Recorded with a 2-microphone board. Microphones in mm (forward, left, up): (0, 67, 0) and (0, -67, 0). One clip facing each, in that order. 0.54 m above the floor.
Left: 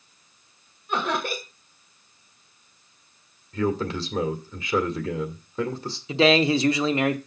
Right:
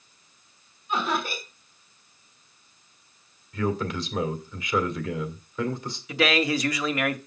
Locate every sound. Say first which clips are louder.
0.9 s laughter: left 1 dB; 70° left (ahead or behind), 1.9 m
3.5 s a man speaking: left 2 dB; 30° left (ahead or behind), 2 m
6.1 s a man speaking: left 5 dB; 25° left (ahead or behind), 0.8 m